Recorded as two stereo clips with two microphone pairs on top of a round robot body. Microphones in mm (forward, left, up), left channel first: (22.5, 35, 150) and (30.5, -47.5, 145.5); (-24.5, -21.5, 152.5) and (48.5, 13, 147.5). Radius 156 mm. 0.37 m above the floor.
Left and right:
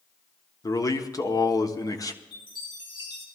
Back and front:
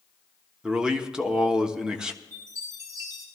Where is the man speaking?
95° left, 1.3 m.